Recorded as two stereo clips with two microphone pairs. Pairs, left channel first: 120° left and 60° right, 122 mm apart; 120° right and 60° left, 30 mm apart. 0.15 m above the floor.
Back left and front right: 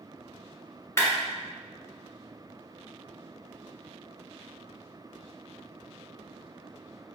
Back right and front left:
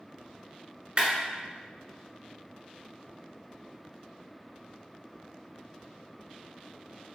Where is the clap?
65° left, 1.6 m.